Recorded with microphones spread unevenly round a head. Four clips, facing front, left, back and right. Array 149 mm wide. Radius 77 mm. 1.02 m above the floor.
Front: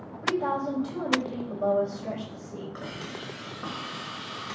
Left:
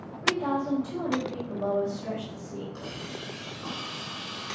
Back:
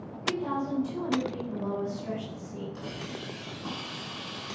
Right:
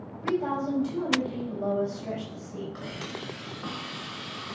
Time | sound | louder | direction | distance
0.2 | a woman speaking | even, front 3 dB | 25° left | 6 m
2.8 | a hiss | right 1 dB, front 1 dB | straight ahead | 4.5 m